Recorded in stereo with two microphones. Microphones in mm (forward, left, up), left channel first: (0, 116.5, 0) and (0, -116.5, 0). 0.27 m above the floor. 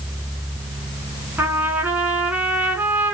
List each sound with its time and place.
1.4 s a trumpet: 10° right (ahead or behind), 0.9 m